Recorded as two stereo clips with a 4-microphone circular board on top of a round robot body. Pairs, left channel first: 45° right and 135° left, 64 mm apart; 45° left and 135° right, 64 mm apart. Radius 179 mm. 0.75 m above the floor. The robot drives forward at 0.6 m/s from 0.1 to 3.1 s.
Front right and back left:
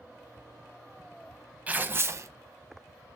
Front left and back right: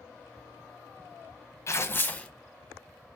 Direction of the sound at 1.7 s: 75° left.